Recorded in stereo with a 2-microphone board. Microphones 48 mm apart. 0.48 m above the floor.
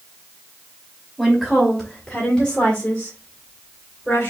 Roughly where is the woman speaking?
Centre.